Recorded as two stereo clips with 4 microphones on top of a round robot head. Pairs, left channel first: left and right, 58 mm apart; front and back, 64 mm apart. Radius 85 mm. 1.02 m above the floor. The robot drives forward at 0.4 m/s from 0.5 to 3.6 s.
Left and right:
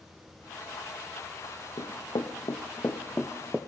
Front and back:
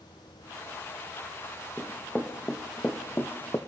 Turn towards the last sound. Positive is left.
turn(degrees=-25)